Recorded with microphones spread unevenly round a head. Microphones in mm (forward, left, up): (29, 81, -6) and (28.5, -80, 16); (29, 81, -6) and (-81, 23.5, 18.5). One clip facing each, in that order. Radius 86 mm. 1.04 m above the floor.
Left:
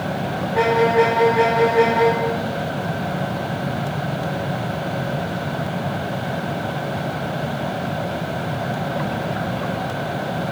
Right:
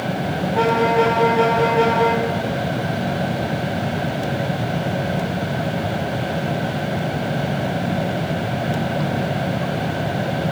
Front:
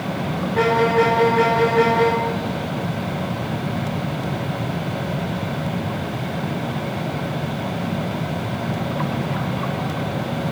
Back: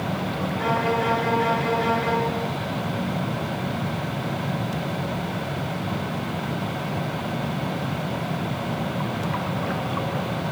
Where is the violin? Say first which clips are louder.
Left 1 dB, front 8 dB; 10° left, 4.5 m.